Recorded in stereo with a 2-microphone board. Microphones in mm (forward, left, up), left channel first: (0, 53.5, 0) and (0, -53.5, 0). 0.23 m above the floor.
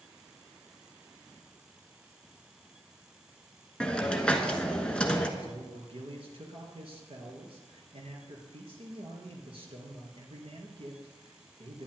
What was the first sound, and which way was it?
A hiss, 10° left (ahead or behind).